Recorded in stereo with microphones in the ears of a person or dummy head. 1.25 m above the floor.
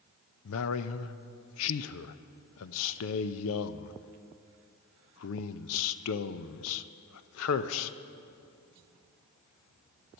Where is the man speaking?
75° left (ahead or behind), 0.7 m.